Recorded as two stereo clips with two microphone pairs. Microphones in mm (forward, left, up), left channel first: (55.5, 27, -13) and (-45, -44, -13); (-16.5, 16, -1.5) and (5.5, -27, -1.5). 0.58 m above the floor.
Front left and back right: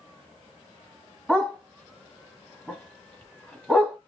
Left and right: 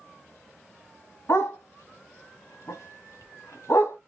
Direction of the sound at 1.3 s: 120° left.